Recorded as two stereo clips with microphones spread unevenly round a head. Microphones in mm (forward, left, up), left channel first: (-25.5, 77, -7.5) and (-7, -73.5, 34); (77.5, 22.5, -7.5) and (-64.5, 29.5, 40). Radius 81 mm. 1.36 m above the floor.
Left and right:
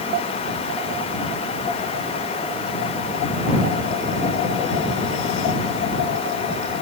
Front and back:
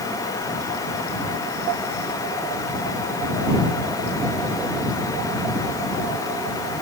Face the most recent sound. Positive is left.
No sound to turn to.